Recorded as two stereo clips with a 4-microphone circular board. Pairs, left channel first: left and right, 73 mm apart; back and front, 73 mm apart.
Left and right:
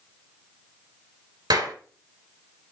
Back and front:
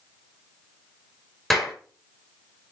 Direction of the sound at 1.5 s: 95° right.